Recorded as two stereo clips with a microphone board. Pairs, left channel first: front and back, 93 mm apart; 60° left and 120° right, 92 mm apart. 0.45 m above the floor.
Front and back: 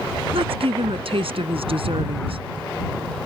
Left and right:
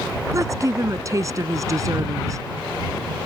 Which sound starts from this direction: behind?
A woman speaking, at 0.3 s.